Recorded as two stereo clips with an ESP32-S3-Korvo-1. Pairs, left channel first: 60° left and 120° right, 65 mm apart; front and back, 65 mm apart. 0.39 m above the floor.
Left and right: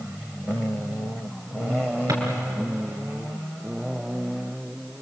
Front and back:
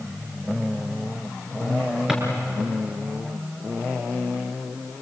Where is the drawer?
100° right, 4 m.